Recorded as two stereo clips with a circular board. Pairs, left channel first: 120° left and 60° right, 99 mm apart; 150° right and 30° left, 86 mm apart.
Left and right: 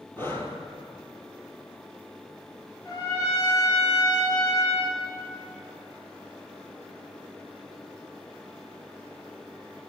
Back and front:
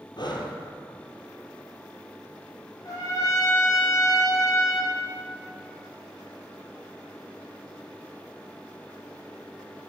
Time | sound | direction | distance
0.2 | breathing | 170° right | 1.2 m
2.9 | a trumpet | 165° left | 3 m